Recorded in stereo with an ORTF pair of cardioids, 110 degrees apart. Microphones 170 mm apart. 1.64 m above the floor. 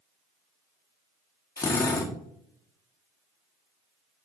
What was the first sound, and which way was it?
A drill, 20° left.